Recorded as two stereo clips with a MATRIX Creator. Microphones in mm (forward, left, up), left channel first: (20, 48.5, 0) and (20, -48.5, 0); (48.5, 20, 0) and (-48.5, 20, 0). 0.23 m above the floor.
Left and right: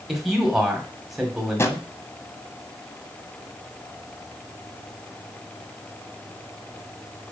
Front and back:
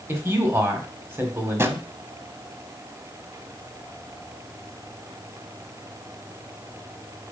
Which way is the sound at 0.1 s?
175° right.